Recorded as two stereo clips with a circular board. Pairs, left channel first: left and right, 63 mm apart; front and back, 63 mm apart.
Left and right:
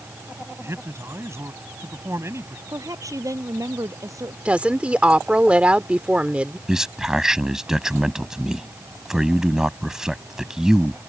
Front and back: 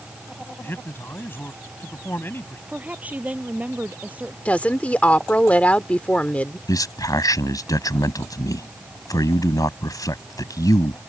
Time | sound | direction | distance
0.6 | a man speaking | 55° right | ?
2.7 | a woman speaking | 115° right | ?
4.5 | a woman speaking | 45° right | ?
6.7 | a man speaking | 10° right | ?